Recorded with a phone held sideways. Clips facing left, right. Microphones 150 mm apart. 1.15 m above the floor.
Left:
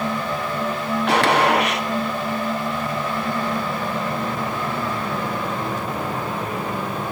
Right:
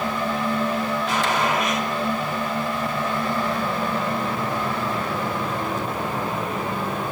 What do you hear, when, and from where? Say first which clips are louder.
1.1 s a gunshot: left 8 dB; 70° left (ahead or behind), 1.9 m